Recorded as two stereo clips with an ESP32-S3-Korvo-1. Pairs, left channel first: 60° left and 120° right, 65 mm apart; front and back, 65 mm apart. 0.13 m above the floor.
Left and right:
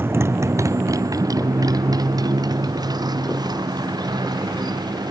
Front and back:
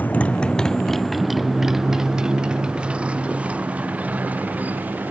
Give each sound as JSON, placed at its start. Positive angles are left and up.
{"t": 0.0, "sound": "a motorcycle", "azimuth_deg": -65}